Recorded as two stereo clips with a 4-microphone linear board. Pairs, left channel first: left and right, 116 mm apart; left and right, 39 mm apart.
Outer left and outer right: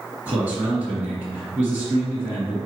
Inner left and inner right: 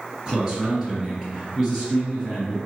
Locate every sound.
0.2 s a man speaking: 10° right (ahead or behind), 1.9 m